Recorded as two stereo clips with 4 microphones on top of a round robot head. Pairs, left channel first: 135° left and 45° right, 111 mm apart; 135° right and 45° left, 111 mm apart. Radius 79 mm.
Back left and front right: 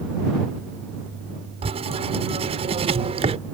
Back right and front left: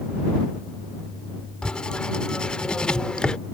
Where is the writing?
55° right.